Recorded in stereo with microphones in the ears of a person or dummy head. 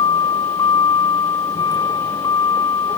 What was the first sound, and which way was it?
A vehicle, 25° left (ahead or behind).